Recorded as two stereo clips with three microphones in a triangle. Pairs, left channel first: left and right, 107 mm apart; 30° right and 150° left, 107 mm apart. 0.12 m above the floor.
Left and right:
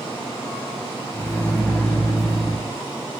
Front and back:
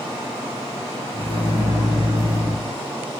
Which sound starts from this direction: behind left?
A microwave, at 1.1 s.